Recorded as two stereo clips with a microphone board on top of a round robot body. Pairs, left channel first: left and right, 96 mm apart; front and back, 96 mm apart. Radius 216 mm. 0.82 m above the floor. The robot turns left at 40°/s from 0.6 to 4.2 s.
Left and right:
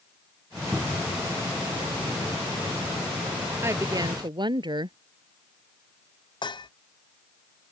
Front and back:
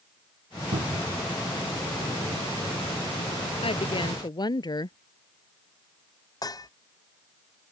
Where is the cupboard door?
175° right; by 1.2 s 165° left.